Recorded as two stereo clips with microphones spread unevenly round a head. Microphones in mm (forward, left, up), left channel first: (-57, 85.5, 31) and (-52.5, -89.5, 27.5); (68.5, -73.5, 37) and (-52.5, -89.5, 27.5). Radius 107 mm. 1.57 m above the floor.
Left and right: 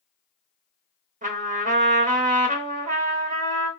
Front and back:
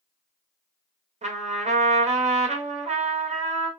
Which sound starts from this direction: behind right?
A trumpet, at 1.2 s.